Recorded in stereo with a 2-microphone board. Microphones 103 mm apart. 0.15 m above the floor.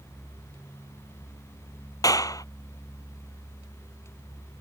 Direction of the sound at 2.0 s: 35° left (ahead or behind).